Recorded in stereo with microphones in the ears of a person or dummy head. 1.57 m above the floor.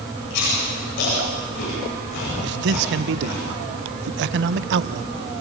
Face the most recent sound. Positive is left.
turn(degrees=-65)  # may be behind; listen again after turning